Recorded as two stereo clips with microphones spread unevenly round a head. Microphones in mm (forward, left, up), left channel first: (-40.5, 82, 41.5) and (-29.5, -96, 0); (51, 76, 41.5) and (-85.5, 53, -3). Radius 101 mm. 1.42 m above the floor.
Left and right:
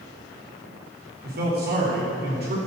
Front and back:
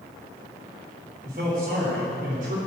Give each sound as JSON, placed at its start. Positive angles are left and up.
{"t": 1.2, "sound": "a man speaking", "azimuth_deg": -120, "distance_m": 3.0}